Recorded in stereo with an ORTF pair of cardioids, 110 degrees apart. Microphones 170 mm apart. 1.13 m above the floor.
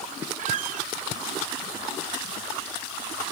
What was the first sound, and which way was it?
A squeak, 50° right.